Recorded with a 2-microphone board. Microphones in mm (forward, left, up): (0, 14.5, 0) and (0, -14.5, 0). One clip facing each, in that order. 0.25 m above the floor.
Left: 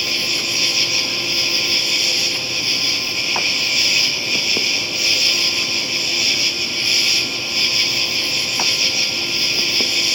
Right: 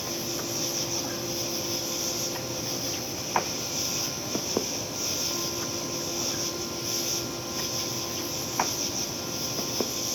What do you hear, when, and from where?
0.0 s an insect: 75° left (ahead or behind)